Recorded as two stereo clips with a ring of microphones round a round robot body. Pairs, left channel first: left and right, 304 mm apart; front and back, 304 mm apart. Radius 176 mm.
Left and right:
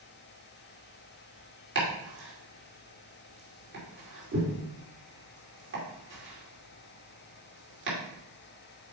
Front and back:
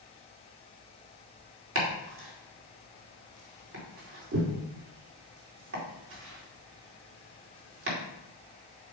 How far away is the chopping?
About 2.5 m.